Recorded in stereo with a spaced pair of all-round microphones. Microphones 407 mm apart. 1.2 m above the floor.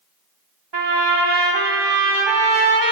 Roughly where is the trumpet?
Right.